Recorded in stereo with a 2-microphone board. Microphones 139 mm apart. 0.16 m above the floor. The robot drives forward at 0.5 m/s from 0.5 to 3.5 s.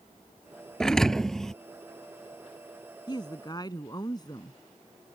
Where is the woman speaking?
35° left (ahead or behind); by 4.6 s 30° left (ahead or behind).